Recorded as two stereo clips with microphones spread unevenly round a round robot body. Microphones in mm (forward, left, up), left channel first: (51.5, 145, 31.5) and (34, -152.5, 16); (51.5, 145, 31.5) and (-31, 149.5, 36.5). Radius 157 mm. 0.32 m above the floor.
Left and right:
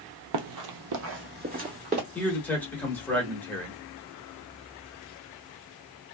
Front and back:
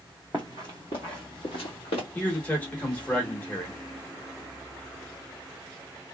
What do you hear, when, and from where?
0.3 s running footsteps: 90° right, 0.7 m; by 2.0 s 25° right, 1.7 m
2.1 s a man speaking: 5° left, 1.0 m